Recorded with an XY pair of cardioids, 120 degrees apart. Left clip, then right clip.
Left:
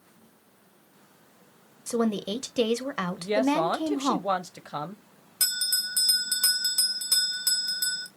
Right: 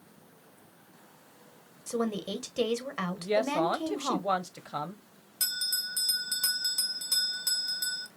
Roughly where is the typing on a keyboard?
I don't hear typing on a keyboard.